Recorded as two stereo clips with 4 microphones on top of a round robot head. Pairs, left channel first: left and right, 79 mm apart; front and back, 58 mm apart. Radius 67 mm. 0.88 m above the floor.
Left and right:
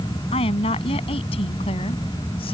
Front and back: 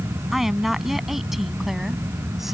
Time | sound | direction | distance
0.3 | a woman speaking | 100° left | ?